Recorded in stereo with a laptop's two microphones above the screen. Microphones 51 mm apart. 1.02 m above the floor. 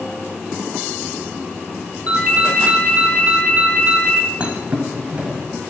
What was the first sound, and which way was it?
A ringtone, 30° right (ahead or behind).